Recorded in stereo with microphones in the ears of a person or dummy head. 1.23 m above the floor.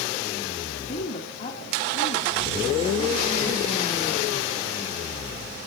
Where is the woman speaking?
35° left (ahead or behind), 3 m.